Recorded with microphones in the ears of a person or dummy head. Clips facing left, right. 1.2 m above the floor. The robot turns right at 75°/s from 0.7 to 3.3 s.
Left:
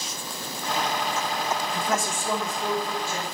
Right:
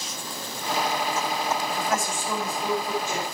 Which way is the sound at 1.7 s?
85° left.